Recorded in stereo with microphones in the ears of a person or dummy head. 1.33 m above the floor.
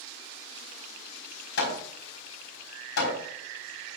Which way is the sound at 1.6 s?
80° left.